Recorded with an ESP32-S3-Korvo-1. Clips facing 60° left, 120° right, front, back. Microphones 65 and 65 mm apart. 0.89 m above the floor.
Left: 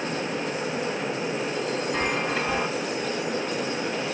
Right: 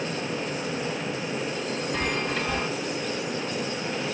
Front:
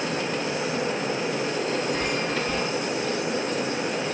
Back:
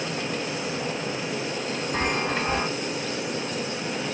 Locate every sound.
1.9 s a chime: 130° left